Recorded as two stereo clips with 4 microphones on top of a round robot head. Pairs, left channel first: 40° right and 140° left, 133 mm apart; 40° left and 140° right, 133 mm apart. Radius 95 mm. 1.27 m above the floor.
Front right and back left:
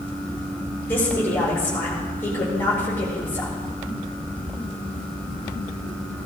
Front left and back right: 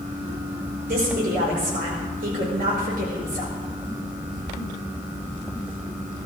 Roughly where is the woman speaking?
Behind right.